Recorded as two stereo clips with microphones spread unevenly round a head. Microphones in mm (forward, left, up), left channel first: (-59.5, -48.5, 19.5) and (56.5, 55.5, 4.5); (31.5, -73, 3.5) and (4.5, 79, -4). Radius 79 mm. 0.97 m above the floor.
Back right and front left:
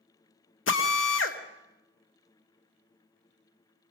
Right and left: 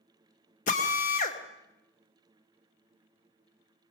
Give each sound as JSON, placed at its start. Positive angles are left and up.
{"t": 0.7, "sound": "a drill", "azimuth_deg": -125, "distance_m": 1.6}